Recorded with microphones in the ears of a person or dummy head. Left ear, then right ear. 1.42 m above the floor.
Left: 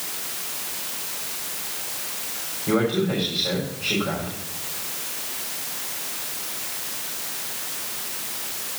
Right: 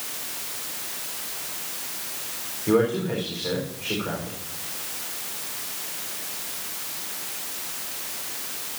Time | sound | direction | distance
2.7 | a man speaking | 60° right (ahead or behind) | 4 m